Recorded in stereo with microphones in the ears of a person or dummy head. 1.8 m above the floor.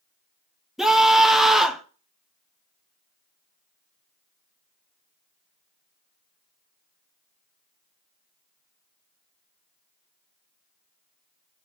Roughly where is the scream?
Centre.